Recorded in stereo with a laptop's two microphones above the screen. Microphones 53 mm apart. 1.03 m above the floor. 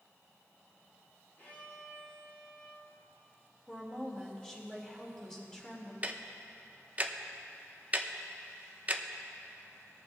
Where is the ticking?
30° right (ahead or behind), 0.6 m.